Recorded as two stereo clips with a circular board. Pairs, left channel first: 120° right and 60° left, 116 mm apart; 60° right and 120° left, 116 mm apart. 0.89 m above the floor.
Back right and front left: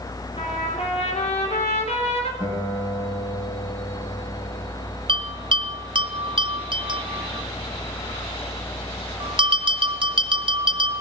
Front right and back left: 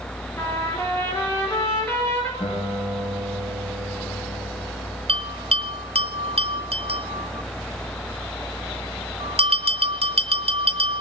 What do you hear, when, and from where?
0.4 s a trumpet: 125° right, 3.5 m
2.4 s a guitar: 85° right, 6.5 m
5.1 s a bell: 100° left, 2 m